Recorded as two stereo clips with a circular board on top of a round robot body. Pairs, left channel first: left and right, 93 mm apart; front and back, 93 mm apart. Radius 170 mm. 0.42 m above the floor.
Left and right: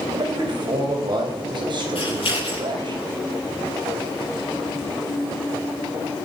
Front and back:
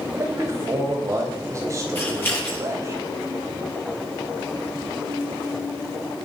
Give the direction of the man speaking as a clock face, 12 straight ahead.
4 o'clock.